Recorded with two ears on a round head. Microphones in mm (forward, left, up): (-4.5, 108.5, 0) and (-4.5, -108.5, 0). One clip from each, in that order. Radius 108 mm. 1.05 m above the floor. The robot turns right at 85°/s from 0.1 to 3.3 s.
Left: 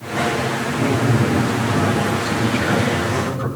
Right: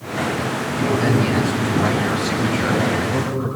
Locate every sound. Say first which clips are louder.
0.8 s a man speaking: right 2 dB; 155° right, 7 m; by 3.5 s 60° left, 7 m